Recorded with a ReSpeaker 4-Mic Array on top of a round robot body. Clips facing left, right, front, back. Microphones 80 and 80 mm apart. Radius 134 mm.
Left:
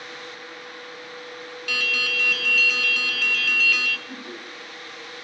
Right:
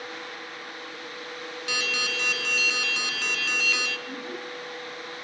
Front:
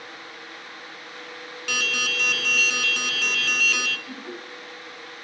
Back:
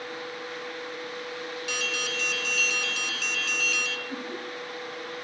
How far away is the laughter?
About 5 m.